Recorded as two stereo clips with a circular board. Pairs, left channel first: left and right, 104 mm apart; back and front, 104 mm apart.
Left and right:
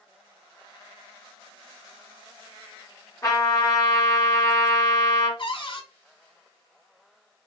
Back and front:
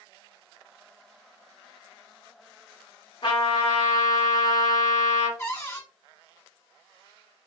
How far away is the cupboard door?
About 3 m.